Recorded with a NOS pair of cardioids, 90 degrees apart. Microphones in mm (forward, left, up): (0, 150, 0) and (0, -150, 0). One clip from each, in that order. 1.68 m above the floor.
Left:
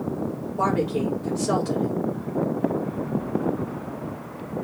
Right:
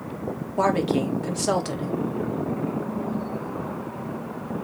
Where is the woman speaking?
65° right, 2.5 m.